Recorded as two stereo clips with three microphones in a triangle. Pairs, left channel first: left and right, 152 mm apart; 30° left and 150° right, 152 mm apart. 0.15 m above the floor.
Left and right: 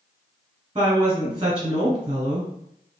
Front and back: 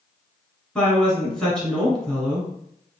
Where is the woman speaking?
55° right, 1.5 m.